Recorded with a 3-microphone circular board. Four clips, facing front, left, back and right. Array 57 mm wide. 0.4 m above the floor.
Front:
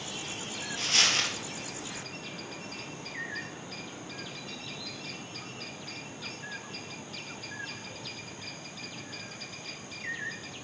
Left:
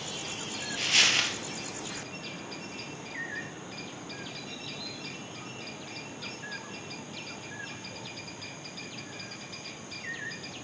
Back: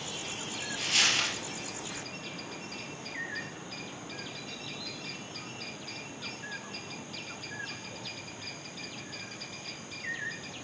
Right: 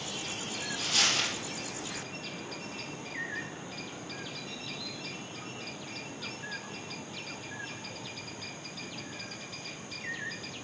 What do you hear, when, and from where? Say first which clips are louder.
0.8 s a dropped coin: left 5 dB, front 1 dB; 85° left, 2.5 m